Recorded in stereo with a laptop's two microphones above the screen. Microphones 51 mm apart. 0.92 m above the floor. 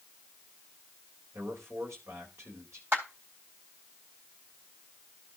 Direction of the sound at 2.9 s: 50° right (ahead or behind).